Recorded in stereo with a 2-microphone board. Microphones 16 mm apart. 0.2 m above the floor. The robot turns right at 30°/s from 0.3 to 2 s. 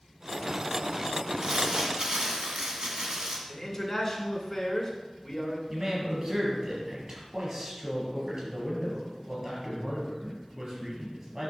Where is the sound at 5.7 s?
30° right (ahead or behind), 4 m.